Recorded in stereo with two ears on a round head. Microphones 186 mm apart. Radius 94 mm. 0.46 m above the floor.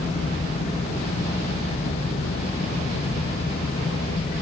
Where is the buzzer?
No buzzer in this recording.